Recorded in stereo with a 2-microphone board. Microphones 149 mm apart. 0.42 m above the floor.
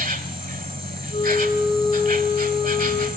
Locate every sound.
0.0 s an insect: 70° right (ahead or behind), 1.2 m
1.1 s a flute: 45° left (ahead or behind), 6 m